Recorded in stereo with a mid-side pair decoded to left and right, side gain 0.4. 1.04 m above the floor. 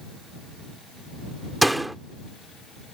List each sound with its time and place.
1.6 s a door slam: 10° right